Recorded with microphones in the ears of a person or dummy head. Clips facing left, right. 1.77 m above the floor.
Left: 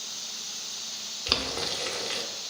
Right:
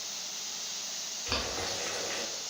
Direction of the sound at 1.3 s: 50° left (ahead or behind).